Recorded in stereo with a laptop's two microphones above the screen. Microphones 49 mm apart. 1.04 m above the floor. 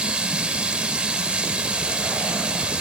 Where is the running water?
20° right (ahead or behind), 2 m.